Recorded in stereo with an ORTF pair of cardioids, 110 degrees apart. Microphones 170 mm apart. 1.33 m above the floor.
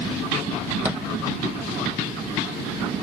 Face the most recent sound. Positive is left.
turn(degrees=-10)